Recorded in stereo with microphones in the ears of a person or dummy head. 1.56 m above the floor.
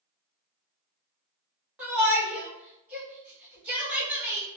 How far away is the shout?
About 1.4 m.